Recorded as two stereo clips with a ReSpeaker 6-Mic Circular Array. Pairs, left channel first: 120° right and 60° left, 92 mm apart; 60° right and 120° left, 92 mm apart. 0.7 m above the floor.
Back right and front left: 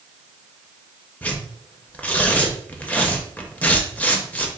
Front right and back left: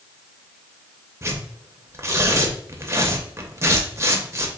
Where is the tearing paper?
170° left, 0.5 m.